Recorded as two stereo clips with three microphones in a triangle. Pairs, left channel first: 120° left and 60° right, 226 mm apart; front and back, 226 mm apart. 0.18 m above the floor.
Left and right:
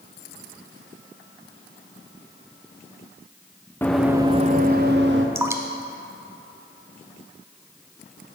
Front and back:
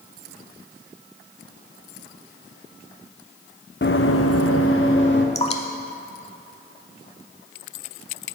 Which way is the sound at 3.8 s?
40° left.